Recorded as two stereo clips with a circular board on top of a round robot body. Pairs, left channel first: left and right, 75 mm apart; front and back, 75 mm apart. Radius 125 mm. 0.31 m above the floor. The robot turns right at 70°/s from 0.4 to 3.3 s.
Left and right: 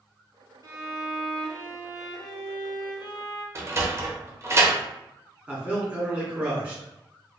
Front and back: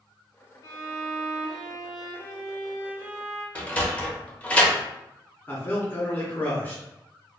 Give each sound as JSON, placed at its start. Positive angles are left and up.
{"t": 0.6, "sound": "a violin", "azimuth_deg": -50, "distance_m": 0.7}
{"t": 3.5, "sound": "a sliding door", "azimuth_deg": -65, "distance_m": 0.8}
{"t": 5.5, "sound": "a man speaking", "azimuth_deg": -35, "distance_m": 1.3}